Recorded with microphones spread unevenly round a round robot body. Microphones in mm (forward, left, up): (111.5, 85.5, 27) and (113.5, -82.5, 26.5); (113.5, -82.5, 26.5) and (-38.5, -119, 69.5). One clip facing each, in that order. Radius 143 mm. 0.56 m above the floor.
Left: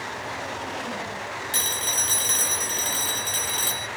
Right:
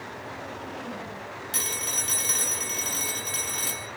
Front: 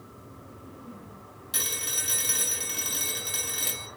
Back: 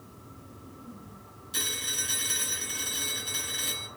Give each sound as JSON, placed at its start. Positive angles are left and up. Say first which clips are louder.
{"t": 1.5, "sound": "a phone ringing", "louder": "left 3 dB, front 1 dB", "azimuth_deg": 35, "distance_m": 1.7}